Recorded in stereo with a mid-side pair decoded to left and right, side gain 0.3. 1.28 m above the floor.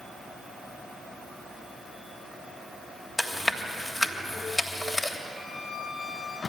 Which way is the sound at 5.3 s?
35° left.